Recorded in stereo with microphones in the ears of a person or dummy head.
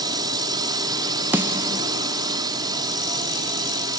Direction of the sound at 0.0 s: 25° right (ahead or behind).